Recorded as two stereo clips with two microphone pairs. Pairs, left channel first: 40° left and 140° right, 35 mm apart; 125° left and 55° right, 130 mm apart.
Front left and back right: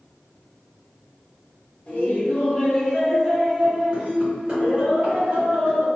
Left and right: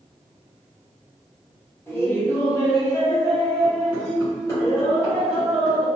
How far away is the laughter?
About 1.0 m.